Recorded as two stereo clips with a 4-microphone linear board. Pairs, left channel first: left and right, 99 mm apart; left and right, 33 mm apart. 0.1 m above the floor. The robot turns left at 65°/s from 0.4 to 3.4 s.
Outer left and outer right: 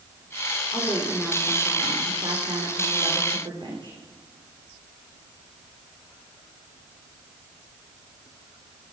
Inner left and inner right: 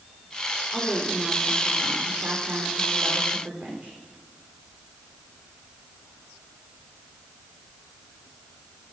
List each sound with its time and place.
0.7 s a woman speaking: 50° left, 5.5 m; by 4.0 s 125° right, 5.5 m